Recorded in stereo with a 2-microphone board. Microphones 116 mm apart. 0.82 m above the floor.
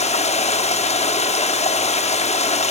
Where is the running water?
70° left (ahead or behind), 0.8 m.